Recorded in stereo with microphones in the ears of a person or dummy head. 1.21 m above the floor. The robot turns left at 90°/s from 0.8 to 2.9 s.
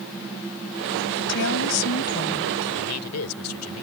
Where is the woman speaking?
135° left; by 2.5 s 15° left.